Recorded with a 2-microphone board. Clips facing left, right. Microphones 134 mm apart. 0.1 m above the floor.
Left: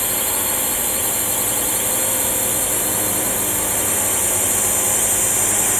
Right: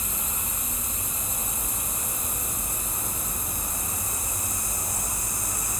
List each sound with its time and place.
0.0 s a drone: 75° left (ahead or behind); by 5.8 s 80° left